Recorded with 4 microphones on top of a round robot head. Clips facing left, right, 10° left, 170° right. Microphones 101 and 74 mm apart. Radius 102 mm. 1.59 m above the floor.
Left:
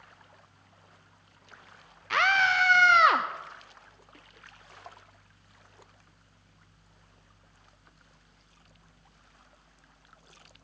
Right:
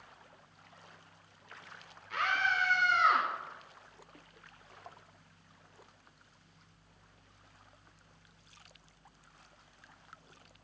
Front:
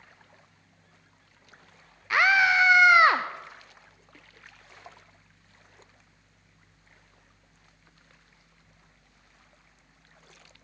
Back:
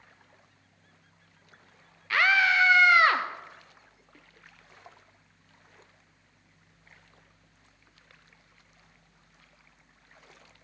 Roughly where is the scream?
Left.